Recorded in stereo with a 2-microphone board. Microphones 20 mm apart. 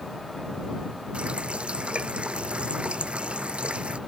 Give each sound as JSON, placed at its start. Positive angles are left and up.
{"t": 1.1, "sound": "a running tap", "side_deg": -50}